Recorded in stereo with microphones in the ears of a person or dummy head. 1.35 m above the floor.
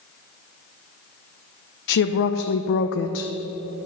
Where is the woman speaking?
65° left (ahead or behind), 0.7 m.